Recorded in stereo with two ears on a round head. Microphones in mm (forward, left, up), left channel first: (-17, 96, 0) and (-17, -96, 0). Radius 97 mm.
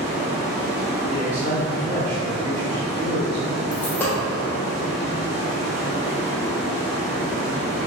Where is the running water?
30° right (ahead or behind), 1.0 m.